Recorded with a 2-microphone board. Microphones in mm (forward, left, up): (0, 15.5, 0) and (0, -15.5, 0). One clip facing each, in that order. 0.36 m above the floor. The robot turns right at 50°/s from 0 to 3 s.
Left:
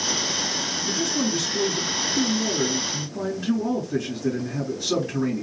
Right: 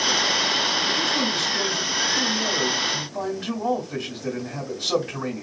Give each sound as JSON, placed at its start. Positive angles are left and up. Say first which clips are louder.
{"t": 0.8, "sound": "a man speaking", "louder": "right 3 dB", "azimuth_deg": -170, "distance_m": 2.0}